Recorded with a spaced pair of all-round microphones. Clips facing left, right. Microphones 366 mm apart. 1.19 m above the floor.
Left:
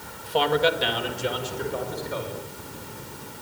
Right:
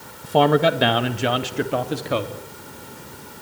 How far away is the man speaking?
About 1.6 m.